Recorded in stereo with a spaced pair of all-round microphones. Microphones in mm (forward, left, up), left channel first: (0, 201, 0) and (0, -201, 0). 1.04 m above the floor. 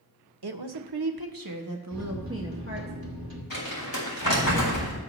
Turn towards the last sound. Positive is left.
turn(degrees=60)  # may be behind; listen again after turning